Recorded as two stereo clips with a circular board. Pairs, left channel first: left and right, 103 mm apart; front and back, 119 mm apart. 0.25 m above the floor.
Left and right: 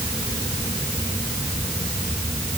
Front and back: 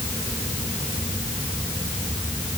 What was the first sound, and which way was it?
Only background noise.